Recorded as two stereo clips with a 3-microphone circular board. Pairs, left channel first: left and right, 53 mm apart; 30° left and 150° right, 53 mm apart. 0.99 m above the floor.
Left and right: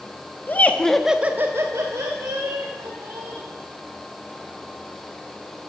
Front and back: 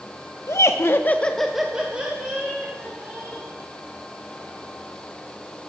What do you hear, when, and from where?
0.5 s laughter: 45° left, 1.0 m; by 3.5 s 95° right, 3 m